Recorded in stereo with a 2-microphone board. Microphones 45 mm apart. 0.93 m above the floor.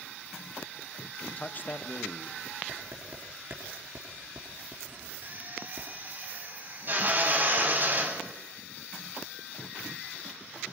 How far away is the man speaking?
About 0.7 m.